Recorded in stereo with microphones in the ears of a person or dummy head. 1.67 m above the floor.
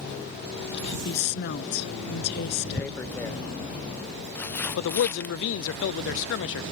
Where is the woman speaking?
60° left (ahead or behind).